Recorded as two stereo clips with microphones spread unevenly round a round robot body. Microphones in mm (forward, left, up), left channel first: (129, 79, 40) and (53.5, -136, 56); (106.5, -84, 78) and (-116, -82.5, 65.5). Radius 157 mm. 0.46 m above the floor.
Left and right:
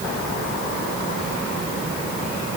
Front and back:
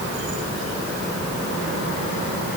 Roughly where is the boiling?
I don't hear boiling.